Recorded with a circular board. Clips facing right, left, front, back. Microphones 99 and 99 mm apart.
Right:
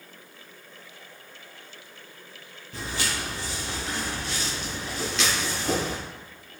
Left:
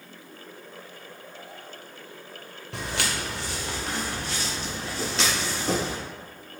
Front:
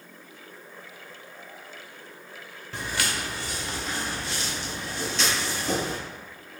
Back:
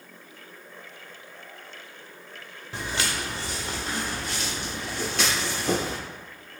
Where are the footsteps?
105° left, 1.1 m; by 6.0 s 150° left, 3 m.